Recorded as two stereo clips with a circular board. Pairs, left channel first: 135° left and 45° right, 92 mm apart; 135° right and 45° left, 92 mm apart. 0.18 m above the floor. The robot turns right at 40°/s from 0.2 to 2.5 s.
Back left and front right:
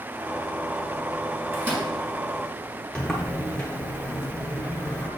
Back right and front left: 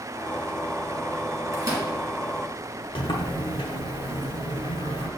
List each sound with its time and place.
1.5 s a microwave: 5° left, 1.5 m; by 1.9 s 20° left, 1.5 m
3.0 s a sliding door: 145° right, 0.8 m